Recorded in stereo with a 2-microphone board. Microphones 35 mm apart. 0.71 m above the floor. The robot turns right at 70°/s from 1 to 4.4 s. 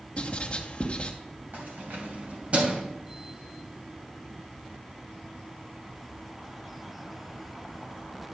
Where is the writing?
35° left (ahead or behind), 1.1 m.